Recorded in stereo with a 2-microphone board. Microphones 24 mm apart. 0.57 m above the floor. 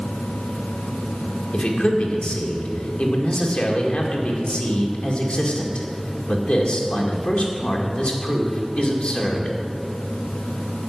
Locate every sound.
1.5 s a man speaking: 50° left (ahead or behind), 1.9 m